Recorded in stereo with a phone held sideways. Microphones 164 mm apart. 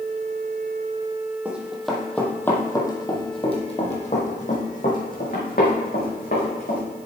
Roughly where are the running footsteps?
Centre.